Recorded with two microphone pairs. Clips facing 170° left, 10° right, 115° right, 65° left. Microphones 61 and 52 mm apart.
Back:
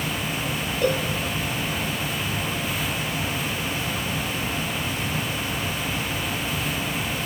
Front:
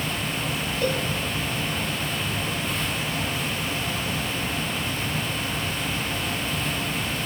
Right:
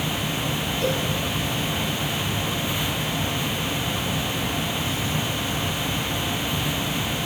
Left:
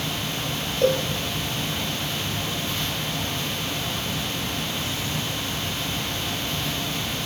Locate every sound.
0.8 s a cowbell: 85° left, 2.5 m